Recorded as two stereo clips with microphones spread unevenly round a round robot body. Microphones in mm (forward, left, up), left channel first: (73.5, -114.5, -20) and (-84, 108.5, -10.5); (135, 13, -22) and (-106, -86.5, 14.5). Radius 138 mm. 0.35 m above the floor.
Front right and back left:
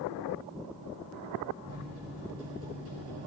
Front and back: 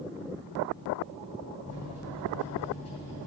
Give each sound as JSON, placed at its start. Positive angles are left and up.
{"t": 1.6, "sound": "a microwave", "azimuth_deg": 90, "distance_m": 4.0}